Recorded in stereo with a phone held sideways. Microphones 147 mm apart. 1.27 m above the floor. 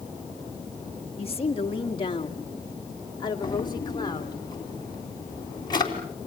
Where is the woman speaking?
45° left (ahead or behind), 1.5 m; by 4.4 s 30° left (ahead or behind), 3 m.